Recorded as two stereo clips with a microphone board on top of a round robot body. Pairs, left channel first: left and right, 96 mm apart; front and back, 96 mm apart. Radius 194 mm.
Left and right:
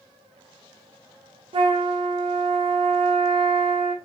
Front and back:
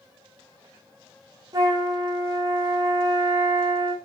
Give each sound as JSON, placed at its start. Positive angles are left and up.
{"t": 1.5, "sound": "a flute", "azimuth_deg": -125, "distance_m": 0.6}